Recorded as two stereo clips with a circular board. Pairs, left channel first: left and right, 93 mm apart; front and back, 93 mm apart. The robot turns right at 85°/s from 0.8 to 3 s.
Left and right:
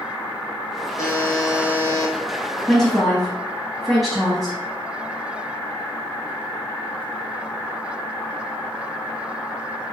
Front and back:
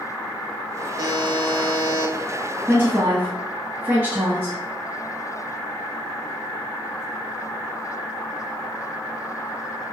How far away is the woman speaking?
About 1.0 m.